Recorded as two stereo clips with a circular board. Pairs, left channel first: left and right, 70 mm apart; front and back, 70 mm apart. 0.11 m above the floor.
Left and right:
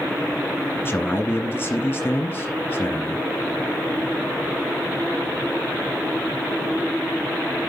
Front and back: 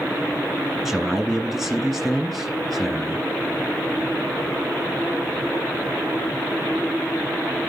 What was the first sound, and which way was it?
A man speaking, 90° left.